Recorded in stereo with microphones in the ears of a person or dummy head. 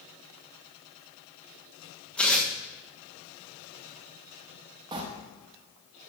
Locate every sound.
2.2 s tearing paper: centre (ahead or behind), 1.3 m
4.9 s a sliding door: 20° right (ahead or behind), 1.3 m